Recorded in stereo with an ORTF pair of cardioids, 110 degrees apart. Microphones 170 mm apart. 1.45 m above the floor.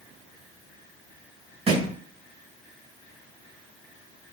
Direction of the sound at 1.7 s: 35° right.